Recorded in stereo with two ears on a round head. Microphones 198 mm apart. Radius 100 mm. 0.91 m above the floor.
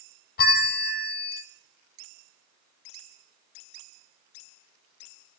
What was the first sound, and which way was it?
A bell, 40° left (ahead or behind).